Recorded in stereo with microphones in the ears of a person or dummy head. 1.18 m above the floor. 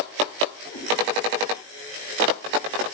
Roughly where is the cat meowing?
Left.